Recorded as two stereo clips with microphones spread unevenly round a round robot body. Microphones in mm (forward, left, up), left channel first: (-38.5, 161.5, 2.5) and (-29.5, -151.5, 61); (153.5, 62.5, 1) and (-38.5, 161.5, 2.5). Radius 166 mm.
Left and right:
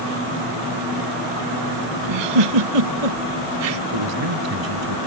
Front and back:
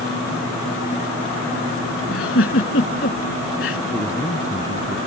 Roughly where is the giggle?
Right.